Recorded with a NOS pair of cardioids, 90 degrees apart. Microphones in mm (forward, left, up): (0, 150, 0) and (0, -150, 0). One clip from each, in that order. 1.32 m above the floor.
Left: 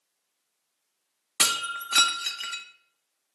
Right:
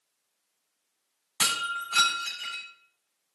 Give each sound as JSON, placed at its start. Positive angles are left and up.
{"t": 1.4, "sound": "breaking glass", "azimuth_deg": 55, "distance_m": 1.7}